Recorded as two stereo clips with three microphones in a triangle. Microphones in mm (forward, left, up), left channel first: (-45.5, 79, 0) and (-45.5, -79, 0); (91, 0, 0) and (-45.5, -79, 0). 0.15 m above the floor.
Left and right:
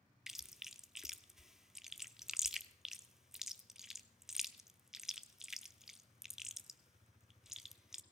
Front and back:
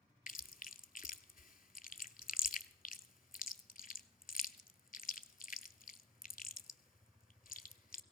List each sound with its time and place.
0.3 s chewing: 5° right, 0.6 m